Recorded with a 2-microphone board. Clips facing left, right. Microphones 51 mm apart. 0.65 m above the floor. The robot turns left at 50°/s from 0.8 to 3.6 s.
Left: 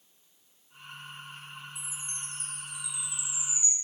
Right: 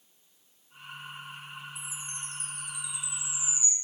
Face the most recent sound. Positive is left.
turn(degrees=-10)